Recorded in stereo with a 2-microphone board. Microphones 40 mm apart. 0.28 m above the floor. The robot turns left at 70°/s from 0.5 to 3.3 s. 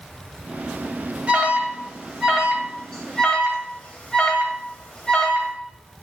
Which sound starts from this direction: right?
An alarm, at 1.3 s.